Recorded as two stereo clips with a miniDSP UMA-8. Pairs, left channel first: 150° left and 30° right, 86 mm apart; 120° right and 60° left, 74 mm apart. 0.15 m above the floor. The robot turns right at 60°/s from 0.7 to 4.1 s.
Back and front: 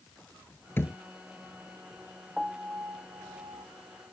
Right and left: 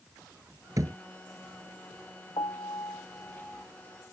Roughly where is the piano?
Behind right.